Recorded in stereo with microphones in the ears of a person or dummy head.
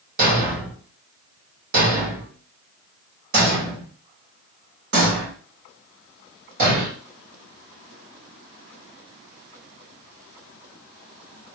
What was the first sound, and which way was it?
A thud, 50° right (ahead or behind).